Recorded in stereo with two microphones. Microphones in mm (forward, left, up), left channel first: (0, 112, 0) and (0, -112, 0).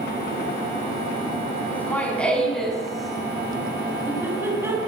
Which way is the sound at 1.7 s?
5° left (ahead or behind).